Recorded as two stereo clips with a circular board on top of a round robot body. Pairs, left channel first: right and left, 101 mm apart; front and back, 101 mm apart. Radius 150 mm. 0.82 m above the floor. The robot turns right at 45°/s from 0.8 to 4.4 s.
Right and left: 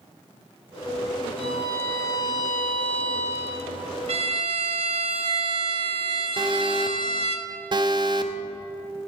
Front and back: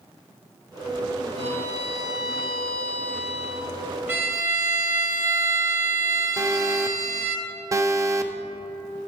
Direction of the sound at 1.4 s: 165° left.